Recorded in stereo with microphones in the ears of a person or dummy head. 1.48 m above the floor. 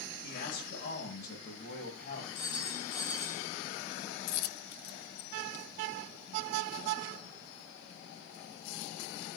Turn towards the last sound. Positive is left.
turn(degrees=55)  # may be behind; listen again after turning